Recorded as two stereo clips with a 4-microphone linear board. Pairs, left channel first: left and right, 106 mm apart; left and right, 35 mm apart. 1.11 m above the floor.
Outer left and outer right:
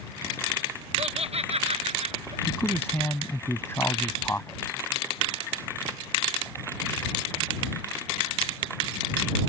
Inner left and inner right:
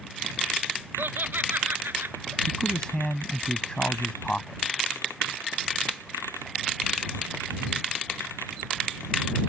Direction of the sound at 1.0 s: 75° right (ahead or behind).